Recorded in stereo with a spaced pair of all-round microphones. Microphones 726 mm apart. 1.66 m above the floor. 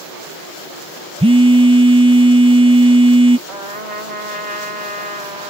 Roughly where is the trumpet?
Right.